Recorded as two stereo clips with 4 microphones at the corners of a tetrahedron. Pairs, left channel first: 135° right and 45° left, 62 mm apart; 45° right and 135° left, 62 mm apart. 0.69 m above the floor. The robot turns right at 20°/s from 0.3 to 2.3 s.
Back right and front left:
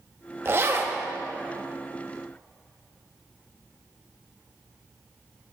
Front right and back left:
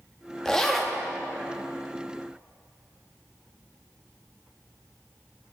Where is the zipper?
30° left, 0.7 m; by 1.0 s 40° left, 0.7 m.